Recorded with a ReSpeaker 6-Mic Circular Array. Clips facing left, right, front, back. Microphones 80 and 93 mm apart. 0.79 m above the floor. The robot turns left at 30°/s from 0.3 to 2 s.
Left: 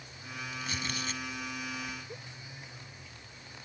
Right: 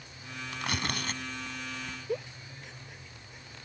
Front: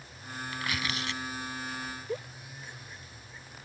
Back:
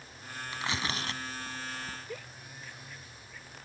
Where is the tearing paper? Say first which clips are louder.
Right 5 dB, back 1 dB; 110° right; by 2.0 s 155° right.